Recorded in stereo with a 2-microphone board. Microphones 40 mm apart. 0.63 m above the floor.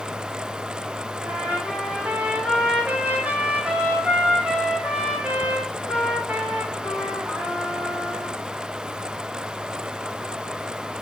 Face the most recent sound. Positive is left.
turn(degrees=-40)  # may be behind; listen again after turning